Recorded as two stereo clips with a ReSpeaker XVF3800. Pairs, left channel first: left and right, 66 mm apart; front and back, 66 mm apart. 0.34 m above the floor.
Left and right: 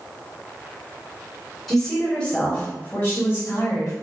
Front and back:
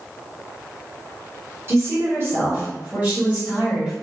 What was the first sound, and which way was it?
A woman speaking, straight behind.